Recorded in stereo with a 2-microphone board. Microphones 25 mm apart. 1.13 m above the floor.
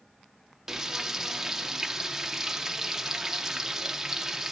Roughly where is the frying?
Centre.